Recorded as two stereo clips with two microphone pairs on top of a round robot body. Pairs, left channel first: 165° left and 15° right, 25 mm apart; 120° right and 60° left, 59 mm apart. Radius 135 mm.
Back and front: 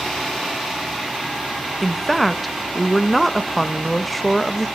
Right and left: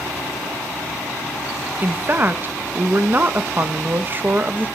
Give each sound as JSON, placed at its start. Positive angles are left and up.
{"t": 1.8, "sound": "a woman speaking", "azimuth_deg": 100, "distance_m": 1.0}